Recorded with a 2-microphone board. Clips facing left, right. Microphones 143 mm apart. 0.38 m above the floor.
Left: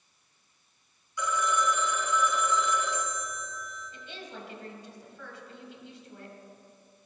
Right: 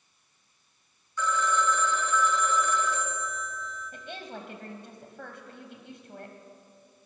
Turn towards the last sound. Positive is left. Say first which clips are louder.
# right 3 dB
turn(degrees=-55)  # may be behind; listen again after turning